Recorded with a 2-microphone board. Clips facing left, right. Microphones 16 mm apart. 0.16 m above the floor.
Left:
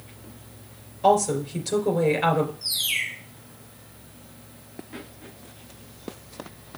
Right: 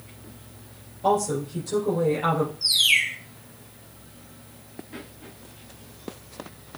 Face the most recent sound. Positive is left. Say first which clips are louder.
# right 7 dB
turn(degrees=-35)  # may be behind; listen again after turning